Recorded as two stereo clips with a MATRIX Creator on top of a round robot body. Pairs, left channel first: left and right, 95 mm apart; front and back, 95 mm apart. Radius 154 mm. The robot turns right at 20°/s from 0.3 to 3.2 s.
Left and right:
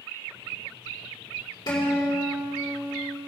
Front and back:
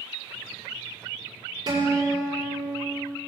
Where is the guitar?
140° left, 5.5 m; by 3.2 s 170° left, 5.5 m.